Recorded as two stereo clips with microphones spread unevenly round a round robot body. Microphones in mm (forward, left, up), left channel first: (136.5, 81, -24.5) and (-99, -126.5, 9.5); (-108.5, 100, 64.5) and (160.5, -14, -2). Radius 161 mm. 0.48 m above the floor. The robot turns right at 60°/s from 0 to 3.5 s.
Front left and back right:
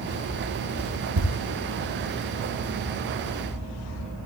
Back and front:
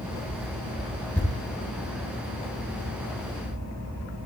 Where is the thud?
120° right, 3 m; by 1.4 s 105° right, 3 m.